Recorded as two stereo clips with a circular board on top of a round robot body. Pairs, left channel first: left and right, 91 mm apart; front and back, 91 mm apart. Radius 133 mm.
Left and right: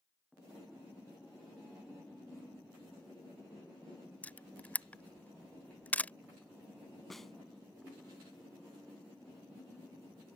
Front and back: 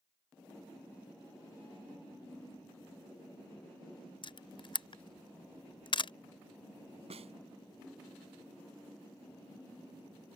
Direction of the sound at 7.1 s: 175° left.